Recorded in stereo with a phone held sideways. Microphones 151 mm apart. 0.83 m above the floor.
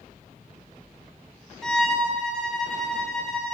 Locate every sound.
1.6 s a violin: 5° left (ahead or behind), 6 m